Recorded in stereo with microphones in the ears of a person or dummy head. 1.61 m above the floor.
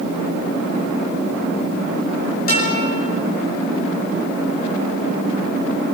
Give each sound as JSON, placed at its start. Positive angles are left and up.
{"t": 2.5, "sound": "a guitar", "side_deg": 45, "distance_m": 7.0}